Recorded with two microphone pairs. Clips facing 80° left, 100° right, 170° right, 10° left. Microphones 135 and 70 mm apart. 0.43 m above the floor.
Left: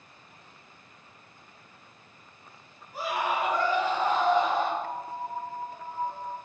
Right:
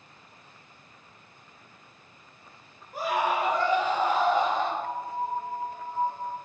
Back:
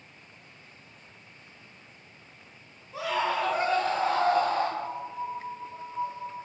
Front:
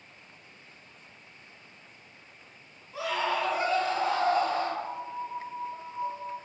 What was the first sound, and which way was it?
A scream, 105° right.